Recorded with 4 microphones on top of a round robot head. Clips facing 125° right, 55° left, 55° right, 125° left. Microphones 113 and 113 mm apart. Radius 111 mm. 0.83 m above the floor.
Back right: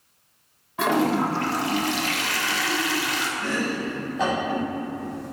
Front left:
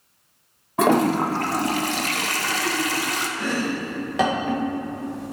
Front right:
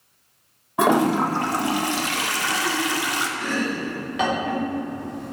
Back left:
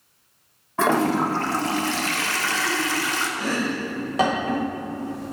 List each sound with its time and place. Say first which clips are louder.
0.8 s a toilet flushing: front left 3 dB, front right 2 dB; 20° left, 0.7 m
3.4 s chopping: front left 2 dB, back left 1 dB; 70° left, 1.3 m